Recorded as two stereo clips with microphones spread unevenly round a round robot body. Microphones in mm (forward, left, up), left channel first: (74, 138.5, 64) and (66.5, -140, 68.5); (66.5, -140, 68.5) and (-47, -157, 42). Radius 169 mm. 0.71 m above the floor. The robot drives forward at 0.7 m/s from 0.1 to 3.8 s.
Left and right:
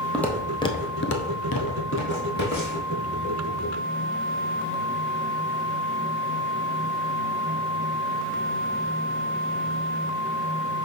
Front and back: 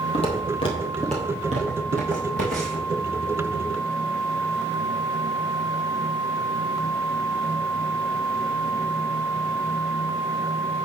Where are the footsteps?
Straight ahead, 1.8 m; by 2.9 s 155° left, 3 m.